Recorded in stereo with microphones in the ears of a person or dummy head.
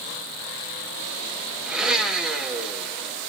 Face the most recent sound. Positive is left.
turn(degrees=-5)  # may be behind; listen again after turning